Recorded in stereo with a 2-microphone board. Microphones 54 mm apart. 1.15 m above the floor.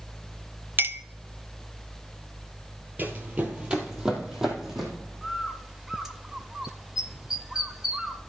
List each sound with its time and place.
0.8 s a clink: 40° right (ahead or behind), 0.6 m
3.0 s running footsteps: 30° right (ahead or behind), 1.4 m; by 4.9 s 5° right (ahead or behind), 3 m
5.2 s a bird: 10° right (ahead or behind), 0.8 m